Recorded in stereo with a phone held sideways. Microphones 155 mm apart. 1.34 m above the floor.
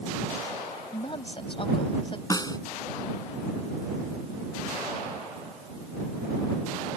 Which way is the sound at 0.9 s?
35° left (ahead or behind).